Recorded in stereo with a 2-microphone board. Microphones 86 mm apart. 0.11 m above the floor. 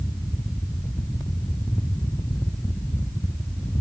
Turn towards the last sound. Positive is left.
No sound to turn to.